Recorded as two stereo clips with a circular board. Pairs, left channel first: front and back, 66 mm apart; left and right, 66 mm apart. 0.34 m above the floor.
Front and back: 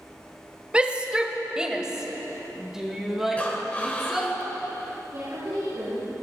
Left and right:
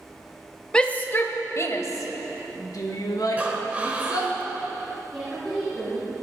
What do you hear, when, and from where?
0.7 s a shout: 140° left, 0.8 m; by 4.3 s 95° left, 3.5 m
3.4 s breathing: 45° right, 1.3 m
5.1 s a woman speaking: 170° left, 4 m